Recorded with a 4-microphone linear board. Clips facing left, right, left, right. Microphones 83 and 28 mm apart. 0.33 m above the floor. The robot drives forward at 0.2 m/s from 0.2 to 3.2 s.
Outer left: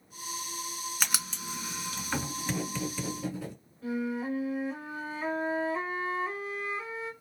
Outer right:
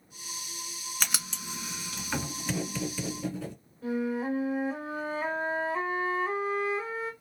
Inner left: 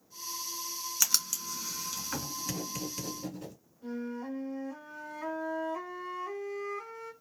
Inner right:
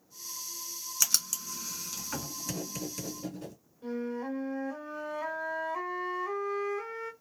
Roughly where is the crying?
No crying in this recording.